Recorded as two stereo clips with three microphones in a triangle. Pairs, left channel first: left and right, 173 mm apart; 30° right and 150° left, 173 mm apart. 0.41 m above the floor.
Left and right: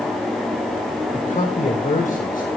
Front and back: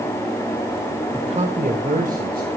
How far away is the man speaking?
About 1.4 m.